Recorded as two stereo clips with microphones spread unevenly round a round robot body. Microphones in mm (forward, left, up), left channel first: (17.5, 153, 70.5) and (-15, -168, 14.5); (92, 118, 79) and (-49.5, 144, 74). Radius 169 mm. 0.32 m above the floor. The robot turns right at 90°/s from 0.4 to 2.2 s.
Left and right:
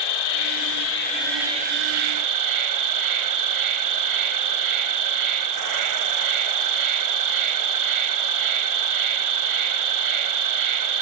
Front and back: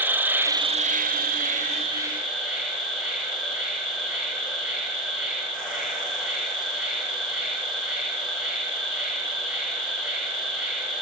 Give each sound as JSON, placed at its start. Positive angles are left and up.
{"t": 0.0, "sound": "an insect", "azimuth_deg": 90, "distance_m": 0.7}